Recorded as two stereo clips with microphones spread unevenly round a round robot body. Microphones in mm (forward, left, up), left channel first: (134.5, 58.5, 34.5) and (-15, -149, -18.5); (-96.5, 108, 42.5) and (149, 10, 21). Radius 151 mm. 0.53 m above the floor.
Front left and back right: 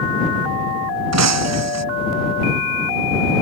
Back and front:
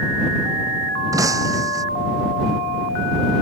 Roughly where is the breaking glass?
Right.